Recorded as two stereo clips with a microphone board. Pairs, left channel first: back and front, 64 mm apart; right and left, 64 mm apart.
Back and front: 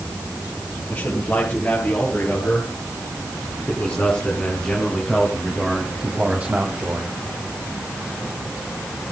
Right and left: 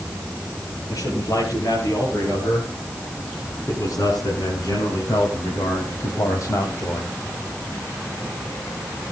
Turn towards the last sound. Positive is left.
turn(degrees=-45)